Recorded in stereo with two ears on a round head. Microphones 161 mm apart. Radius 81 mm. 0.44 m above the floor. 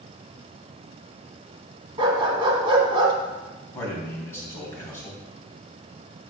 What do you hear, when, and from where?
2.0 s a dog barking: 30° right (ahead or behind), 1.4 m
3.7 s a man speaking: 15° left (ahead or behind), 3 m